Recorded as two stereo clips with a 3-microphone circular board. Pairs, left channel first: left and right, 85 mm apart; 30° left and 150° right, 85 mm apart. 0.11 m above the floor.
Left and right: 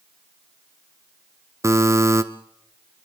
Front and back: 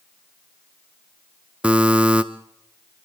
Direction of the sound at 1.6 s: 85° right.